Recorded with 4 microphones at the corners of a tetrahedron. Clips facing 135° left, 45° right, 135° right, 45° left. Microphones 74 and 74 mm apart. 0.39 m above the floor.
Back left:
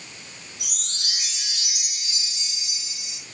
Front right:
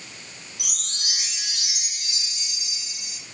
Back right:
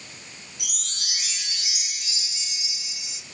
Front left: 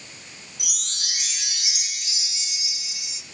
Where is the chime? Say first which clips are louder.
Even, front left 1 dB; 25° right, 9 m.